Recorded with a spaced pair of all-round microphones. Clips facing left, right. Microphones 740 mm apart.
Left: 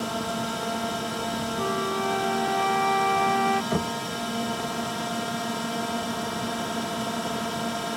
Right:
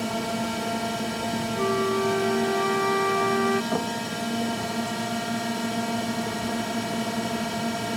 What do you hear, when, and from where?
0.0 s a drone: 55° right (ahead or behind)
1.6 s a flute: 25° left (ahead or behind)
3.7 s knocking: 50° left (ahead or behind)